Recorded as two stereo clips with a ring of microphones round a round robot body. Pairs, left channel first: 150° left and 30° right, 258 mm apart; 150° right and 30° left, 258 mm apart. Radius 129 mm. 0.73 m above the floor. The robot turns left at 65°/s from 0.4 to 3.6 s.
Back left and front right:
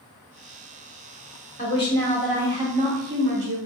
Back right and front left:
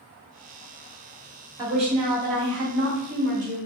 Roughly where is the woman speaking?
Left.